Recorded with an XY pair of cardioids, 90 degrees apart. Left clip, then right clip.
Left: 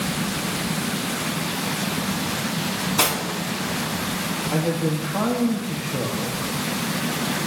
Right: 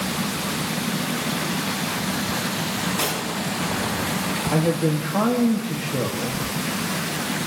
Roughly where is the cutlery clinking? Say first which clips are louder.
Left 6 dB; ahead left.